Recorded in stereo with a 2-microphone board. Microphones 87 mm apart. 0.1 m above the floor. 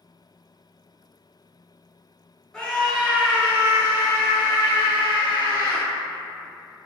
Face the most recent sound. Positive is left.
turn(degrees=-50)  # may be behind; listen again after turning